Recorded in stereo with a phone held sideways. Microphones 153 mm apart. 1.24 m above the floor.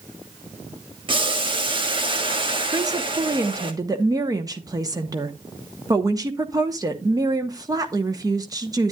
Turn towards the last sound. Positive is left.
turn(degrees=-25)  # may be behind; listen again after turning